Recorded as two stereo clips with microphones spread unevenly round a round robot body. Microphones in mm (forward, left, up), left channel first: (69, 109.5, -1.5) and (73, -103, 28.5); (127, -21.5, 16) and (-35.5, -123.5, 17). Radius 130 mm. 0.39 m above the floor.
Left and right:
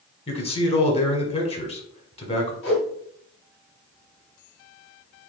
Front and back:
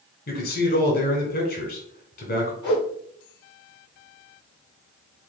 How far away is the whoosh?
About 1.7 m.